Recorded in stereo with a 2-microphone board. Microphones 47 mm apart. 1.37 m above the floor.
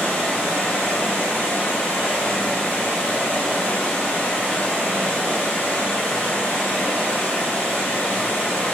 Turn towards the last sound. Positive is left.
turn(degrees=25)  # may be behind; listen again after turning